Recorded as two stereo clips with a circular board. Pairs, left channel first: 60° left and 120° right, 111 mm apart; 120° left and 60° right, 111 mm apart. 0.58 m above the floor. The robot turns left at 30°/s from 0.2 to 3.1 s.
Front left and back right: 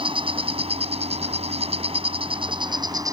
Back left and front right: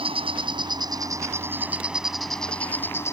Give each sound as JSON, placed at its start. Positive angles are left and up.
{"t": 0.0, "sound": "an insect", "azimuth_deg": -90}